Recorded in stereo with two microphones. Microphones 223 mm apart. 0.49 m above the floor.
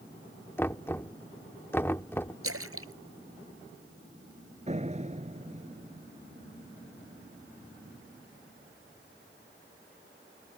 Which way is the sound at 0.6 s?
10° left (ahead or behind).